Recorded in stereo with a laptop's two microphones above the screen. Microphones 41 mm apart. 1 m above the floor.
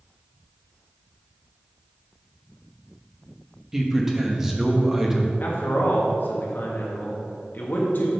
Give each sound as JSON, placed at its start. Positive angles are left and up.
{"t": 3.7, "sound": "a man speaking", "side_deg": -10, "distance_m": 1.0}
{"t": 5.4, "sound": "a man speaking", "side_deg": 55, "distance_m": 1.5}